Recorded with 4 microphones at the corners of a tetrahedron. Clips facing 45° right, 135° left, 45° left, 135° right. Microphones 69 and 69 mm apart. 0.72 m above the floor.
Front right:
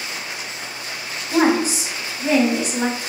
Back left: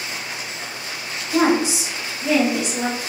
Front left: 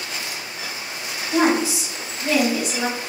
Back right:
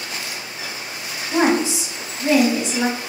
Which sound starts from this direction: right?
A woman speaking, at 1.3 s.